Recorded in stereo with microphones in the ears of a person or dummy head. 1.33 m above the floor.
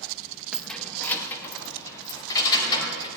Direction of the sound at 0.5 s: 5° right (ahead or behind).